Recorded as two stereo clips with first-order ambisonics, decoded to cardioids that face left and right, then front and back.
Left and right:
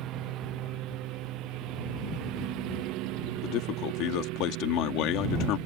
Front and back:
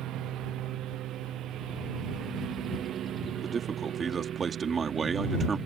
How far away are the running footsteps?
No running footsteps in this recording.